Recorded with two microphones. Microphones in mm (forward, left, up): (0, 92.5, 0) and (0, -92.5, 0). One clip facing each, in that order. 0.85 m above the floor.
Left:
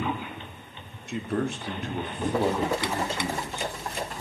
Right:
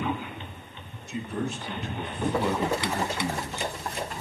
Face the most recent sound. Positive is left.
turn(degrees=10)  # may be behind; listen again after turning